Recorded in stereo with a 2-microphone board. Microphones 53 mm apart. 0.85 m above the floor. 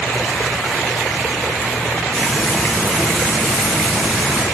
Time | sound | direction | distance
2.1 | frying | 5° left (ahead or behind) | 2.0 m